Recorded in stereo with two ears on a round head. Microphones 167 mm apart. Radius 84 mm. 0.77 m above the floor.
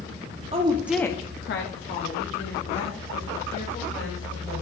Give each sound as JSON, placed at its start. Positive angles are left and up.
{"t": 0.5, "sound": "a woman speaking", "side_deg": -30, "distance_m": 0.9}